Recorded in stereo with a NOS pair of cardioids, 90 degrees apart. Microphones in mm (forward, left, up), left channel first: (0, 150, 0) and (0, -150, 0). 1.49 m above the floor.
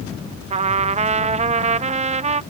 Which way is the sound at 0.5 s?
25° right.